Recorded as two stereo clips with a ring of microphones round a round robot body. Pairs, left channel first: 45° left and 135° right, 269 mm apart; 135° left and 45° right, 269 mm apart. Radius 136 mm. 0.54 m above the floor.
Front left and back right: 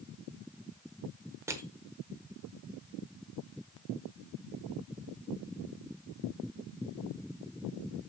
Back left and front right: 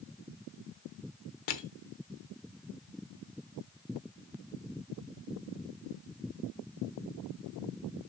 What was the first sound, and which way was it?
Crushing, 145° left.